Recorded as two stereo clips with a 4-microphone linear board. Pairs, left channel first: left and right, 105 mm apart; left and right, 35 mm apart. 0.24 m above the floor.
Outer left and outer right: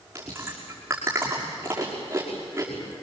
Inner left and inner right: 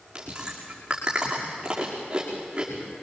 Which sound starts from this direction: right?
Chewing, at 0.1 s.